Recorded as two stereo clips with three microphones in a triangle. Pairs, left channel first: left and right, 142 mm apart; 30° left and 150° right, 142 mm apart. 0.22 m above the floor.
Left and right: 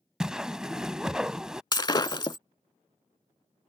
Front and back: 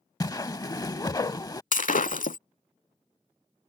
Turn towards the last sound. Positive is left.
turn(degrees=35)